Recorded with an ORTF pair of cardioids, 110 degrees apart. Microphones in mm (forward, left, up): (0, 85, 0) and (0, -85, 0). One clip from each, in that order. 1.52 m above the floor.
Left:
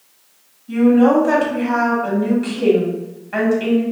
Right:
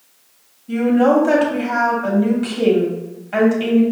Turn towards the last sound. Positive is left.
turn(degrees=-20)